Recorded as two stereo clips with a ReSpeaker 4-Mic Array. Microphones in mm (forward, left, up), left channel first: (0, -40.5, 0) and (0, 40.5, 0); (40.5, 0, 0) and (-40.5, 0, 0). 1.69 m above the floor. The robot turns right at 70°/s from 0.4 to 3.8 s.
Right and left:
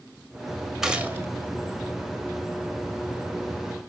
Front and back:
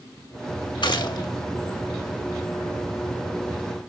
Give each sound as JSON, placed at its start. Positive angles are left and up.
{"t": 0.8, "sound": "a gunshot", "azimuth_deg": 5, "distance_m": 1.5}